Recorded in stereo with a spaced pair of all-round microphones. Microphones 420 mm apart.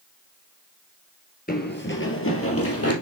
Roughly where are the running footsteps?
Left.